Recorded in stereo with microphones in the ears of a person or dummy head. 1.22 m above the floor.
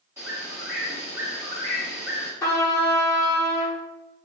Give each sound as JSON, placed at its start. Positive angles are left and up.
{"t": 0.2, "sound": "a bird", "side_deg": -10, "distance_m": 1.1}
{"t": 2.4, "sound": "a trumpet", "side_deg": 20, "distance_m": 0.6}